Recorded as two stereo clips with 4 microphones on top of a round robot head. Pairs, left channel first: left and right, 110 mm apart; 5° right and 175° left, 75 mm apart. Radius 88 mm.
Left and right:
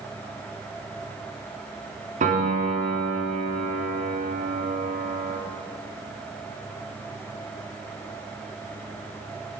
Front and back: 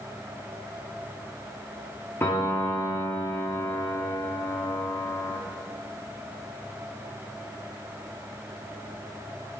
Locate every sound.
2.2 s a piano: 75° right, 2.5 m